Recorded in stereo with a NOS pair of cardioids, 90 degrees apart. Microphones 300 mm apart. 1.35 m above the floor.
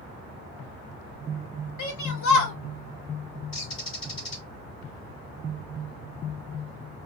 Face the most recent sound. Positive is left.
turn(degrees=45)